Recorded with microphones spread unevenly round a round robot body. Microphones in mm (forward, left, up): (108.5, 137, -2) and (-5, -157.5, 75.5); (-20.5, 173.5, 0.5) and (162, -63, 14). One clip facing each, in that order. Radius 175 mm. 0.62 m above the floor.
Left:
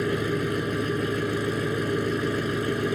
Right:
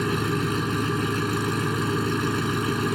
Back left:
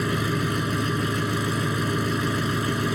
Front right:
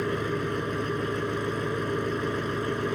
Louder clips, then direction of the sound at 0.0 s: Even, back left 2 dB; 175° left.